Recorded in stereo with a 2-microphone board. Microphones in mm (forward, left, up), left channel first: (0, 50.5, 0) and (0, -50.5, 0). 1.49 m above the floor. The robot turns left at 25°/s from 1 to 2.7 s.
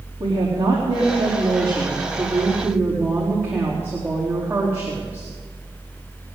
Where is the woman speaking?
125° right, 4 m; by 5.3 s 165° right, 4 m.